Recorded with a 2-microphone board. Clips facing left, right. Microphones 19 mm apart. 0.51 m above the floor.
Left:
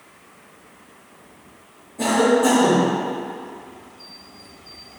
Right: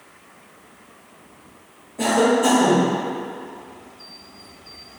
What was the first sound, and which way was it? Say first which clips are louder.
A cough: even; 30° right (ahead or behind).